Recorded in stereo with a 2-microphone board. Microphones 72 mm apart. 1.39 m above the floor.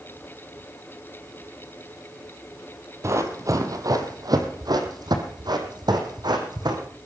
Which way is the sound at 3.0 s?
40° right (ahead or behind).